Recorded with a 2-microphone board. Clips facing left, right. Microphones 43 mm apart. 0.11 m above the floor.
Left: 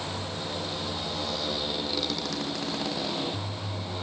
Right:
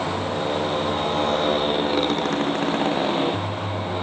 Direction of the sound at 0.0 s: 50° right (ahead or behind).